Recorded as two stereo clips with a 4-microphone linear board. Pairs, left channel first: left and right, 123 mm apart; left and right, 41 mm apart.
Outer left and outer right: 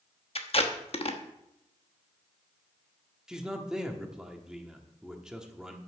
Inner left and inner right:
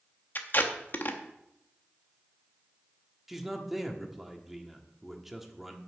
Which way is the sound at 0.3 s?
50° left (ahead or behind).